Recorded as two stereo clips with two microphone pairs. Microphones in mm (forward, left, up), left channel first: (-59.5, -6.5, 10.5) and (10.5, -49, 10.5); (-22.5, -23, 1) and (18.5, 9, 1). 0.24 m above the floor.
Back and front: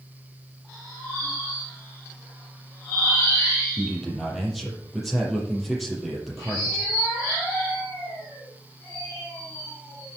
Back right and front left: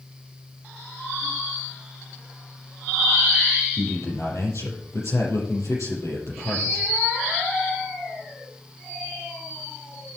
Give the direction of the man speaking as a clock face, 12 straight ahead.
4 o'clock.